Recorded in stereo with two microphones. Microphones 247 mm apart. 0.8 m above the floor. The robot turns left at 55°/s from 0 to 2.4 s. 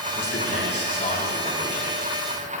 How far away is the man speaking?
About 5 m.